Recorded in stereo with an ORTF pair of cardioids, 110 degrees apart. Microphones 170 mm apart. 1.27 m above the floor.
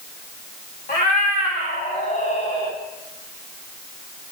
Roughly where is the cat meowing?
Ahead left.